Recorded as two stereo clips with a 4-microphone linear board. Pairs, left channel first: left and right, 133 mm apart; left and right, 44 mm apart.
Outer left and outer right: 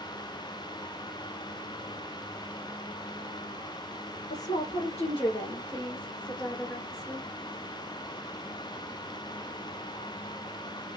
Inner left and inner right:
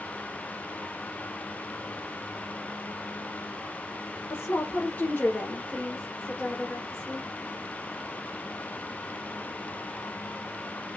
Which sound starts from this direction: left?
A woman speaking, at 4.3 s.